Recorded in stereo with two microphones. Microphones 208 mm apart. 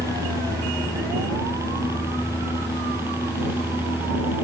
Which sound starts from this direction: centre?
A helicopter, at 0.0 s.